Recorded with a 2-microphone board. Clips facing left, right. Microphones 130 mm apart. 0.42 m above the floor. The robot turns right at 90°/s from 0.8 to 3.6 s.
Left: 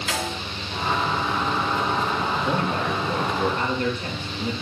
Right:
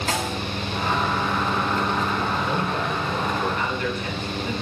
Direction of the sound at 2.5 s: 40° left.